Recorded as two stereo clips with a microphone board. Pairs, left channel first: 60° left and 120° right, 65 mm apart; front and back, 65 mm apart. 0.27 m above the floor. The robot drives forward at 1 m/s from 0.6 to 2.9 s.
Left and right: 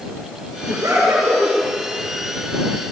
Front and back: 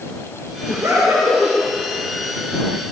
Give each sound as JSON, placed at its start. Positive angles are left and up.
{"t": 0.7, "sound": "laughter", "azimuth_deg": -140, "distance_m": 5.0}